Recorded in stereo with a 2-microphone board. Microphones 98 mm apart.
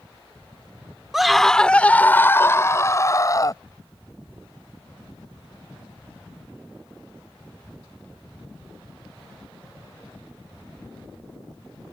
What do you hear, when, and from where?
1.1 s a scream: 5° right (ahead or behind); by 3.6 s 35° left (ahead or behind)